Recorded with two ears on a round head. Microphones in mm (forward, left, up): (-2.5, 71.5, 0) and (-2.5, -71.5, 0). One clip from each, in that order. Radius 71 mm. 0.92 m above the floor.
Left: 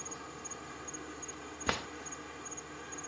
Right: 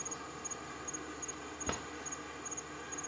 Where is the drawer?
45° left (ahead or behind).